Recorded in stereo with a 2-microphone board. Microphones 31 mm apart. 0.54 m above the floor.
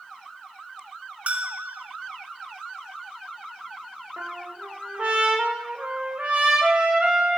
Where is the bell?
50° right (ahead or behind), 1.0 m.